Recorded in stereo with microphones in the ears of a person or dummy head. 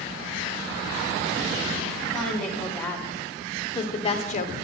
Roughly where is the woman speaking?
Centre.